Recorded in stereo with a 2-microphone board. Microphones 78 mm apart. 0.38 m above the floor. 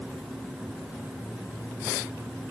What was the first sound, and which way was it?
Only background noise.